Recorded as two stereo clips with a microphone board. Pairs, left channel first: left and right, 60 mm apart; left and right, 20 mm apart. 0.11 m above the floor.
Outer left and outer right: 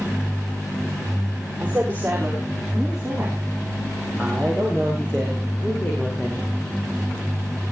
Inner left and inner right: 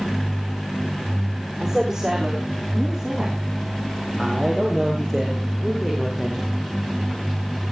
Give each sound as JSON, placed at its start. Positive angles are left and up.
{"t": 1.6, "sound": "a woman speaking", "side_deg": -20, "distance_m": 7.5}